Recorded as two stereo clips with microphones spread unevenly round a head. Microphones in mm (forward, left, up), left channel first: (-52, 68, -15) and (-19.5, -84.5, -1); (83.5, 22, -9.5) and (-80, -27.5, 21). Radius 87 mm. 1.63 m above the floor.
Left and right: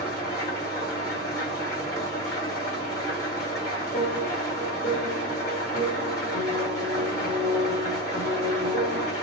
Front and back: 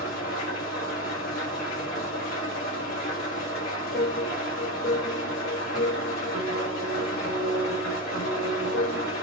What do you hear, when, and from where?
0.0 s an engine running: 30° left, 1.3 m
3.9 s a piano: 60° left, 1.5 m